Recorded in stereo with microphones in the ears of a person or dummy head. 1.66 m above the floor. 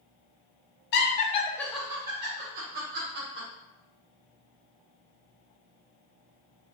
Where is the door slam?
No door slam in this recording.